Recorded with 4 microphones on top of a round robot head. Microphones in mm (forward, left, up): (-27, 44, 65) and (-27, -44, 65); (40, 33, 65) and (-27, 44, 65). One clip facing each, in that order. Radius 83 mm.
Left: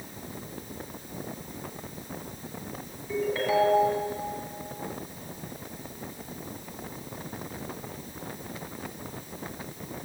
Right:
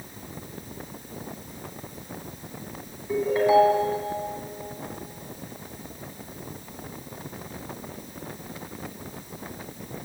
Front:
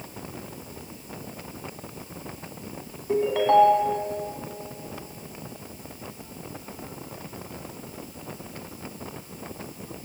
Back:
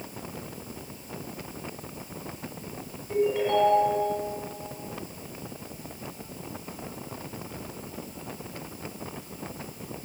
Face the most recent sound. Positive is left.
turn(degrees=-15)